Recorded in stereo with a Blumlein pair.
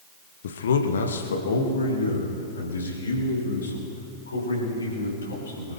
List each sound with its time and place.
0.4 s a man speaking: 60° left, 1.3 m; by 5.8 s 75° left, 8 m